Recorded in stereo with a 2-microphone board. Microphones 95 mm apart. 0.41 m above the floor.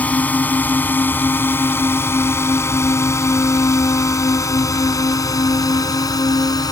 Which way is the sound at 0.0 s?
15° left (ahead or behind).